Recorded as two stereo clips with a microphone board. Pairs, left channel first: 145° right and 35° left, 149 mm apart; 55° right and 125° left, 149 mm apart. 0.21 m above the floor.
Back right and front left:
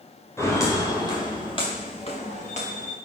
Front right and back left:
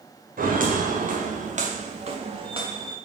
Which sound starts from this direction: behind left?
Footsteps, at 0.4 s.